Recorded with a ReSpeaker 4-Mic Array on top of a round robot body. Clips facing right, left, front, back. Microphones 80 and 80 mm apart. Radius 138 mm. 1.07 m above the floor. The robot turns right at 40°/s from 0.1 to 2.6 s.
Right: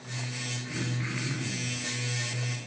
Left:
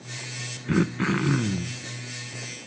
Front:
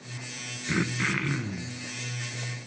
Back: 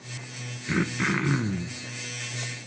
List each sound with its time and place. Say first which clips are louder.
0.7 s throat clearing: left 13 dB, back 2 dB; 90° left, 1.1 m; by 1.8 s 135° left, 1.1 m